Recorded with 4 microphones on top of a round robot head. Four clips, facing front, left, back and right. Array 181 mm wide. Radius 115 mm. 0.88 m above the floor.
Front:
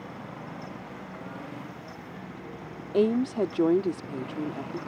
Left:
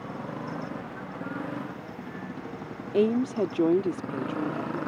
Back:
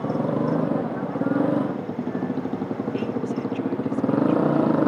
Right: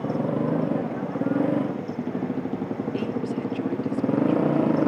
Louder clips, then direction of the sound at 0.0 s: Right 11 dB, back 17 dB; 145° right.